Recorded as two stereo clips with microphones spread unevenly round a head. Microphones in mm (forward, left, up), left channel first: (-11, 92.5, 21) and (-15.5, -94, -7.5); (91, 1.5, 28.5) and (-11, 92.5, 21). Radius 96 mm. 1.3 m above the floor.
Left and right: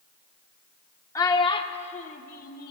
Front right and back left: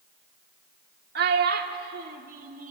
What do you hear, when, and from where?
1.1 s a child speaking: 155° left, 1.6 m; by 2.7 s 120° left, 1.7 m